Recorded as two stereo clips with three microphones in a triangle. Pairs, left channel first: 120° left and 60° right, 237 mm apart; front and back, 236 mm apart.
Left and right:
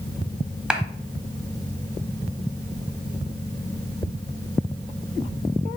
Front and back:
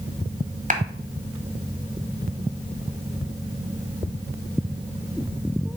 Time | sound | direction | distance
0.7 | a clap | 145° right | 1.1 m